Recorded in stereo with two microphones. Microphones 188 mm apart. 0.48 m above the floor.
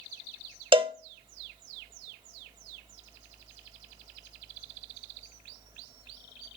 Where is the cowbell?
25° right (ahead or behind), 0.6 m.